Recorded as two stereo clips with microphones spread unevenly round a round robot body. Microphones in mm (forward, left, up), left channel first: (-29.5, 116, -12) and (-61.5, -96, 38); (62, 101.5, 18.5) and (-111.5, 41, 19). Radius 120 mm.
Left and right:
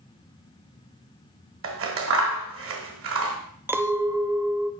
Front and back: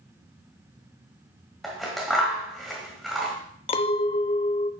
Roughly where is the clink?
Ahead.